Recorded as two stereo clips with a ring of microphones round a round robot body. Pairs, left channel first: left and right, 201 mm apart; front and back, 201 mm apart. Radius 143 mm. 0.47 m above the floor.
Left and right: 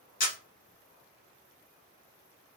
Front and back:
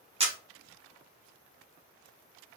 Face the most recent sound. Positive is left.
turn(degrees=130)